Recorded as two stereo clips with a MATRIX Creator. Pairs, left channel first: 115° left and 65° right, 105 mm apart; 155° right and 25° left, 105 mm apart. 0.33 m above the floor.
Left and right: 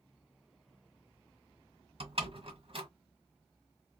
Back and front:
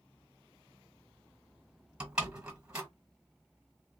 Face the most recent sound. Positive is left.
turn(degrees=-55)